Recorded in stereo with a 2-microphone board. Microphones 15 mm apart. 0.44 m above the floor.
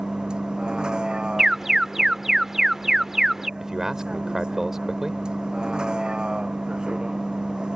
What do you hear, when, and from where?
0.0 s a vehicle: 75° right (ahead or behind)
1.4 s an alarm: 30° right (ahead or behind)
3.6 s a man speaking: 35° right (ahead or behind)